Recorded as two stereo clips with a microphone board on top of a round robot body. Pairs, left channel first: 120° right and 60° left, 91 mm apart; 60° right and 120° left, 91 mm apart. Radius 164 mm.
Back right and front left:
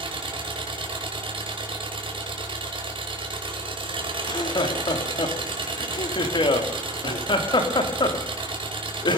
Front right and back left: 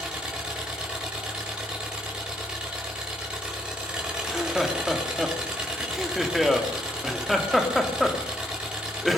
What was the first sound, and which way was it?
An engine running, 40° left.